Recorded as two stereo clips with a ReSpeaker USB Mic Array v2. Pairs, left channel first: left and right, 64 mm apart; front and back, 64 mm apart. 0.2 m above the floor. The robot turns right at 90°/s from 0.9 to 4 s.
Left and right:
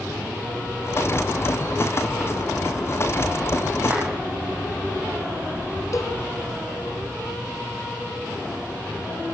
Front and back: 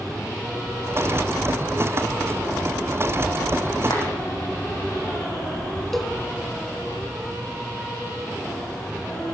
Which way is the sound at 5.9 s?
85° left.